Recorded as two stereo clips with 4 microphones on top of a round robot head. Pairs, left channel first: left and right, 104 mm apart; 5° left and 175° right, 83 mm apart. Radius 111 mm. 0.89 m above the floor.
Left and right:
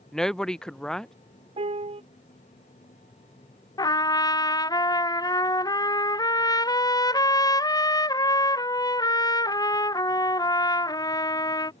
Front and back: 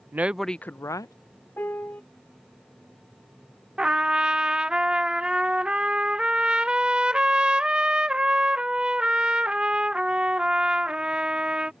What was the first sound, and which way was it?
A woman speaking, 170° left.